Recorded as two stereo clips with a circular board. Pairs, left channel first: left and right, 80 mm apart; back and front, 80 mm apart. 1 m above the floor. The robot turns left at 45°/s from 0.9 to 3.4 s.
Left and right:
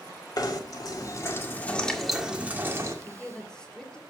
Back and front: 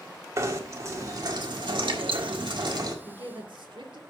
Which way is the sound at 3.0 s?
25° left.